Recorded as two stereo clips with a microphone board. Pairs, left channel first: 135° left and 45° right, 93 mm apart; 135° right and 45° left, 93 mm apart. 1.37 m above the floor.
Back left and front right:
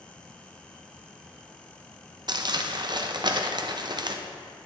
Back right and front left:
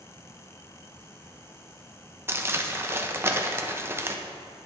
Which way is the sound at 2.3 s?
15° right.